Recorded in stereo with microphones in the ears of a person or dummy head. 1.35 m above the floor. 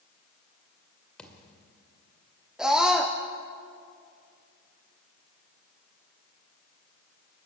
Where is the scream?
5° right (ahead or behind), 0.9 m.